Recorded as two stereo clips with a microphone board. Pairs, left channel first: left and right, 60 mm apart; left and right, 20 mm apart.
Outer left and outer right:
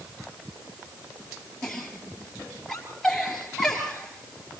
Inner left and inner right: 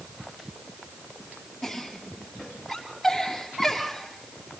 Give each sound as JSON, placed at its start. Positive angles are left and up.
{"t": 1.6, "sound": "a giggle", "side_deg": 5, "distance_m": 5.5}